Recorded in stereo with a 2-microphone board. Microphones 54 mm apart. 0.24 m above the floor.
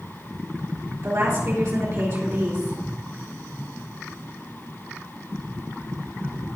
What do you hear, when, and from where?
1.0 s a woman speaking: 60° right (ahead or behind), 3 m